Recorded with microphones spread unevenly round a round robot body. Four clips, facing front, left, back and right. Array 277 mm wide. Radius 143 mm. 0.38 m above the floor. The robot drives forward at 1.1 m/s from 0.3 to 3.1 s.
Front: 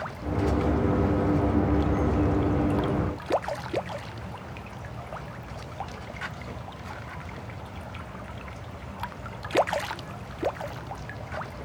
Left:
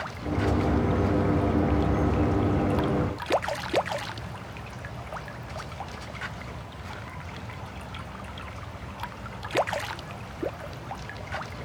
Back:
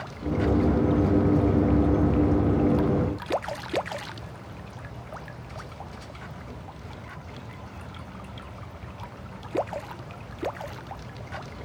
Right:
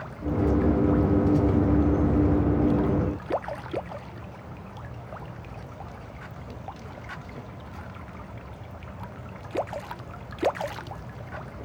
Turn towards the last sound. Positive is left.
No sound to turn to.